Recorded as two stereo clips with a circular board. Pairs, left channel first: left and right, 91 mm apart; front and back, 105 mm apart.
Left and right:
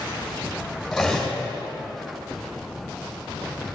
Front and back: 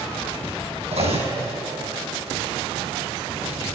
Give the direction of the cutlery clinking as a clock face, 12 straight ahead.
6 o'clock.